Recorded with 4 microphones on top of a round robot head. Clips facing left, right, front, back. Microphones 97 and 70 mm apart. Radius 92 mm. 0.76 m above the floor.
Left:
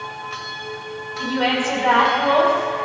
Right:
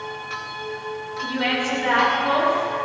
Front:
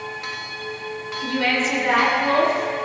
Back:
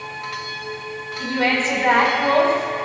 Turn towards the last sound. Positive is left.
turn(degrees=135)